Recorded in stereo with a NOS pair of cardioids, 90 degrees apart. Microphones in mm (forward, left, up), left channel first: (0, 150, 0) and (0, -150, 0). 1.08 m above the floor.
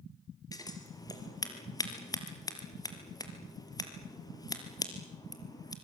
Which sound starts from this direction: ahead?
Scissors, at 0.5 s.